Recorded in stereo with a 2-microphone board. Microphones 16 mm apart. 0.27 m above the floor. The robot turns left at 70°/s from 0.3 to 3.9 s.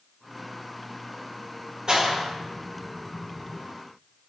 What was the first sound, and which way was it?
A clap, 55° right (ahead or behind).